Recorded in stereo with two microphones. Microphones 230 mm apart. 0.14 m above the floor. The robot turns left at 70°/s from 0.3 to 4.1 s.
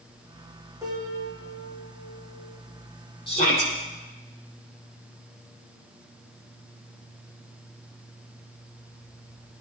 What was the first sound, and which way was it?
A piano, 10° right.